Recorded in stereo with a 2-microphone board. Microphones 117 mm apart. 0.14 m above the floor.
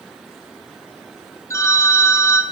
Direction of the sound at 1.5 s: 25° left (ahead or behind).